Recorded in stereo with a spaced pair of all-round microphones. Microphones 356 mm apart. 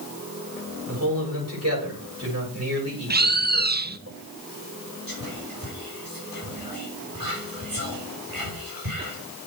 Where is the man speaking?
45° right (ahead or behind), 8 m.